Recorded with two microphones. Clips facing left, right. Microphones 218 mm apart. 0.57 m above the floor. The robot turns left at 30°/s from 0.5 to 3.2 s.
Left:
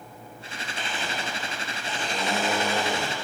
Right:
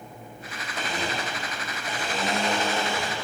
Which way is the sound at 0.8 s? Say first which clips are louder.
Right 4 dB; 135° right.